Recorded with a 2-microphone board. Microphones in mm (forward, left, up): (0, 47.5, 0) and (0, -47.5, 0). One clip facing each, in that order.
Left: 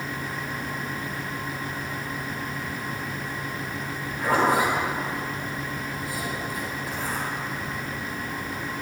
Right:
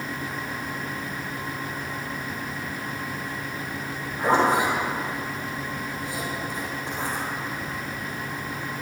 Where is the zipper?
30° right (ahead or behind), 5 m.